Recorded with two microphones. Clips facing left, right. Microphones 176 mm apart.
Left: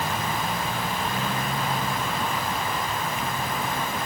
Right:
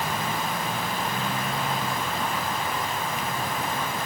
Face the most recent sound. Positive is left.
No sound to turn to.